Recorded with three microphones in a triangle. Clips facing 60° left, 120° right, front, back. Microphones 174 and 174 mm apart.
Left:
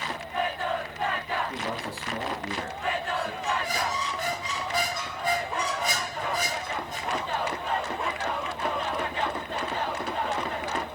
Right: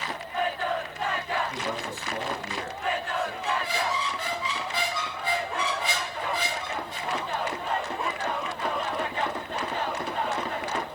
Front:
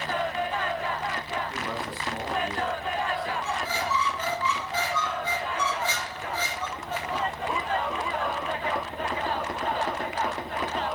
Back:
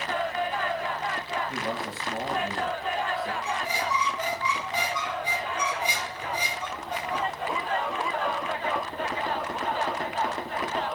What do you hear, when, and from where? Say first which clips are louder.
1.5 s a man speaking: right 1 dB, back 1 dB; 115° left, 6 m
3.4 s a squeak: right 1 dB, even; 105° left, 1.2 m